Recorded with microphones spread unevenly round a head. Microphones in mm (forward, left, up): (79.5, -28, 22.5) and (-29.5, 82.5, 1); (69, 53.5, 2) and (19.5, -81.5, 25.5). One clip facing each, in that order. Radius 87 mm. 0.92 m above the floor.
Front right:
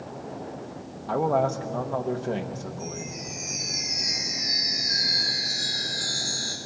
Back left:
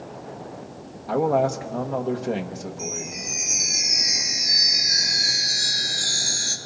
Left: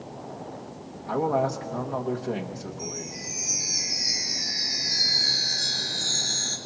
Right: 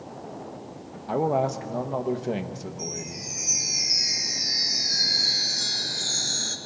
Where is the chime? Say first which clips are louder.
Back left 2 dB, even; 165° right, 1.6 m.